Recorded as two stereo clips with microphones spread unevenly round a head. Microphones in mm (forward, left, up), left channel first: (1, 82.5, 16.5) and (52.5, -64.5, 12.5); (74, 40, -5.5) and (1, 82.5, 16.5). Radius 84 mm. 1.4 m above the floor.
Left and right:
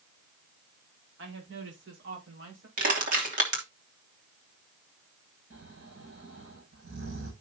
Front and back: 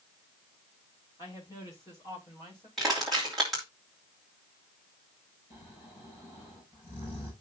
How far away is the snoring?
About 8 m.